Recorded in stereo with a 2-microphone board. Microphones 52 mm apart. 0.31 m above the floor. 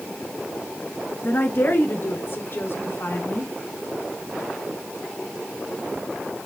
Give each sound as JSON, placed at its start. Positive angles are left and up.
{"t": 1.2, "sound": "a woman speaking", "side_deg": 45, "distance_m": 5.0}